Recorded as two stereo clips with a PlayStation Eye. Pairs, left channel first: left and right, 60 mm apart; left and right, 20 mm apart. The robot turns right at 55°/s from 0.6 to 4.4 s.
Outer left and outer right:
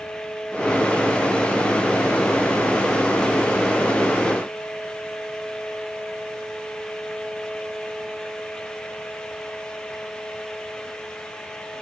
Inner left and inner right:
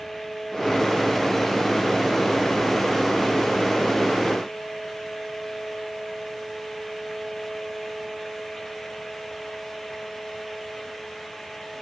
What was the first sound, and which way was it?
Only background noise.